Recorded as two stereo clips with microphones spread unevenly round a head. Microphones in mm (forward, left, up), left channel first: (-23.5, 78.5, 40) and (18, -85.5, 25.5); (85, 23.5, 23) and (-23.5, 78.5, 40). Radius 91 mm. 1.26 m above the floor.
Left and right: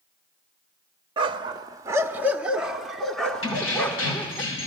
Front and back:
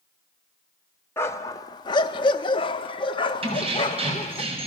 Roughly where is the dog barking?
Right.